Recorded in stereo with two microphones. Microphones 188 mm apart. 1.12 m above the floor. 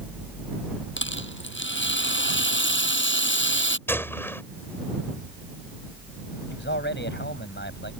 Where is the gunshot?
10° left (ahead or behind).